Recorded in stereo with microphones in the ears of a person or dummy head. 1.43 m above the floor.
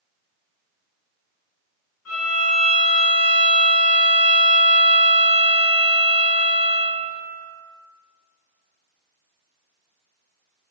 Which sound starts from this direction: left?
A violin, at 2.0 s.